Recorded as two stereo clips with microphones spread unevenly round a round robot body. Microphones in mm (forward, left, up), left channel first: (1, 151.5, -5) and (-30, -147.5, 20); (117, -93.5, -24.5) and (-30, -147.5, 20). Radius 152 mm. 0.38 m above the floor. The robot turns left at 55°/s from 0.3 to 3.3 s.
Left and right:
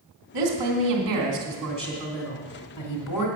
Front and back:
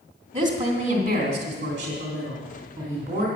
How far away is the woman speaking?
About 2.5 m.